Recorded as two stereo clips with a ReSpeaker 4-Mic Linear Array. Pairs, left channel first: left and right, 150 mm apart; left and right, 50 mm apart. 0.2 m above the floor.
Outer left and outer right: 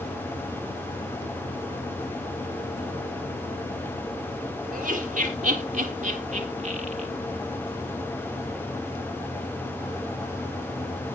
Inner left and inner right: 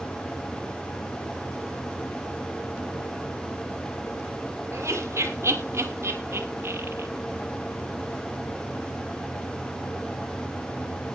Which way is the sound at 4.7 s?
55° right (ahead or behind).